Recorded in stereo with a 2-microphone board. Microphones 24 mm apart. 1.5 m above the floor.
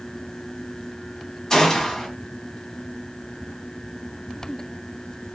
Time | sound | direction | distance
1.5 | a gunshot | 25° left (ahead or behind) | 1.7 m